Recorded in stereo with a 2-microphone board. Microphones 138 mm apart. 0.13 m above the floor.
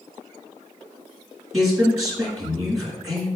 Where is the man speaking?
Centre (ahead or behind), 1.3 m.